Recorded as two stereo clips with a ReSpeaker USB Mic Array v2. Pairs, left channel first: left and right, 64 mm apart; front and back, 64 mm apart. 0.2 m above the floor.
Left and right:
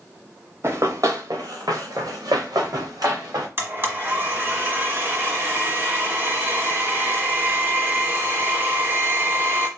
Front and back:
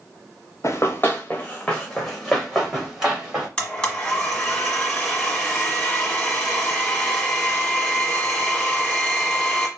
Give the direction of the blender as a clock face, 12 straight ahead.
2 o'clock.